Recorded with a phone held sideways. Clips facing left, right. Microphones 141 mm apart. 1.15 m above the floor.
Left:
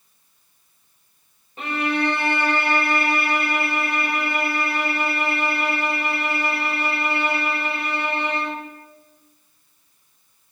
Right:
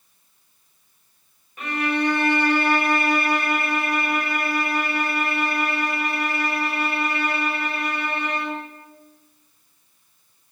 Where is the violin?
30° left (ahead or behind), 5 m.